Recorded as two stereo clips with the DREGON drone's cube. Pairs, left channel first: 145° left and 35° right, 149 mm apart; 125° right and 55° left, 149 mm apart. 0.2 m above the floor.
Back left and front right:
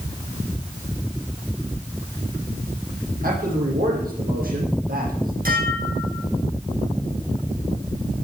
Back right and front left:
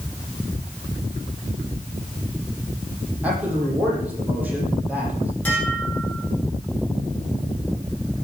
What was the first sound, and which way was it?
A man speaking, 25° right.